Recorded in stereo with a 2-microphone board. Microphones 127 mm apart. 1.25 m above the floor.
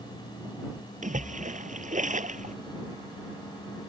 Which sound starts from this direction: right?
A splash, at 1.0 s.